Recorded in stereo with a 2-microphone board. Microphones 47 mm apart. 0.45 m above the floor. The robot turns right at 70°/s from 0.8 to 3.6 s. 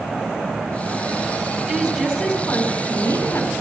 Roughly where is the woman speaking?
Ahead right.